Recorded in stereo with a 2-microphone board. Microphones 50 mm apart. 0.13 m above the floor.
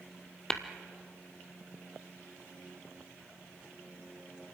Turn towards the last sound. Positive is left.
turn(degrees=10)  # may be behind; listen again after turning